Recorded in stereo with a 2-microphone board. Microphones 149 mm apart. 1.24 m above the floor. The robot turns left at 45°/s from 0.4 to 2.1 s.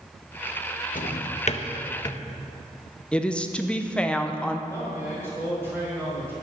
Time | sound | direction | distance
0.9 | a drawer | 65° left (ahead or behind) | 0.7 m
3.1 | a woman speaking | 5° left (ahead or behind) | 0.7 m
4.7 | a man speaking | 15° right (ahead or behind) | 4 m